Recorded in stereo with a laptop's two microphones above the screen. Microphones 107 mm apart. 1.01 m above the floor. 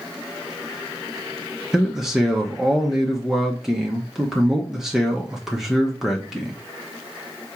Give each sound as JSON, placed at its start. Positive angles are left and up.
{"t": 1.7, "sound": "a man speaking", "side_deg": -5, "distance_m": 0.8}